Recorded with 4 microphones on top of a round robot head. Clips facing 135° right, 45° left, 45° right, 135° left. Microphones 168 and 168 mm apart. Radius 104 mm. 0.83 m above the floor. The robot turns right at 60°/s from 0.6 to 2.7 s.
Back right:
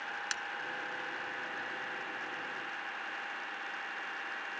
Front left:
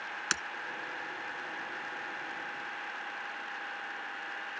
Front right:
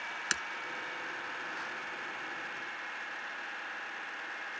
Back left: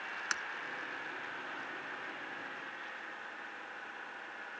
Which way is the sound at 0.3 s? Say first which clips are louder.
Front left 4 dB, front right 4 dB; 15° left.